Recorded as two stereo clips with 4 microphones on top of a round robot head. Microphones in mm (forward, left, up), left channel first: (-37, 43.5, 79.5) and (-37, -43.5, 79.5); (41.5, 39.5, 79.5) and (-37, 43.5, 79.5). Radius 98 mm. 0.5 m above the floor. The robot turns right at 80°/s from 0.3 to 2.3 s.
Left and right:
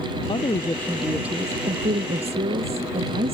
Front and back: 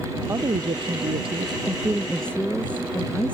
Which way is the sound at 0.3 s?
120° left.